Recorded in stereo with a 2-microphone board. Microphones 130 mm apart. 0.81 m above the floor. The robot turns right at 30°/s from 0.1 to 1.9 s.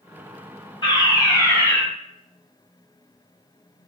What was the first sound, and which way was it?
A fire alarm, 40° left (ahead or behind).